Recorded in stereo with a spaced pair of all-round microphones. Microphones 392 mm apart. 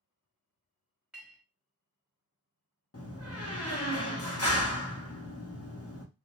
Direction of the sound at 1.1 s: 5° right (ahead or behind).